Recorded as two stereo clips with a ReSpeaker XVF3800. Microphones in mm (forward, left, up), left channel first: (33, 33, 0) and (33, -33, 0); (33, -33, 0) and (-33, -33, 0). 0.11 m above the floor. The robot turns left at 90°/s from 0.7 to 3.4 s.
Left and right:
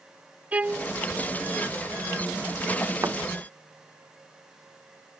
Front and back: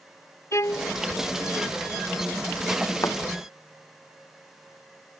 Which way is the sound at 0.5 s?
25° right.